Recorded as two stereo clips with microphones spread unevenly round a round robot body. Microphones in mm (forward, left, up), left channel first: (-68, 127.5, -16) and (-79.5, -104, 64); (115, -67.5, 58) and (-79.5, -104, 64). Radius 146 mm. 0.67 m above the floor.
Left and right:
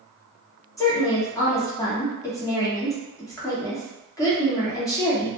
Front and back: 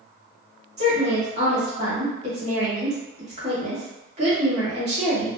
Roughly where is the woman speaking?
Behind left.